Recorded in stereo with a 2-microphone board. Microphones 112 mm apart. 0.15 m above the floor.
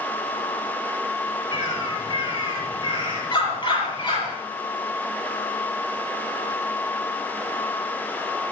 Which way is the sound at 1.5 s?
45° left (ahead or behind).